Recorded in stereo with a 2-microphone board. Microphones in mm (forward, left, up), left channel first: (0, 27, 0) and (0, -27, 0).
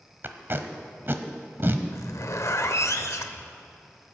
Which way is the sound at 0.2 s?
45° right (ahead or behind).